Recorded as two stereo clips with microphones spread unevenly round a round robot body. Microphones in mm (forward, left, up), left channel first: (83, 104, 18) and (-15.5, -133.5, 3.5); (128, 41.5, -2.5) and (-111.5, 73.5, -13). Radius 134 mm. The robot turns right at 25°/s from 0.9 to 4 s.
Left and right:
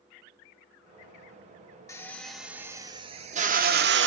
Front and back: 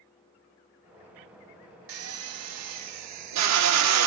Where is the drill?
150° left, 1.1 m; by 4.1 s 160° right, 1.1 m.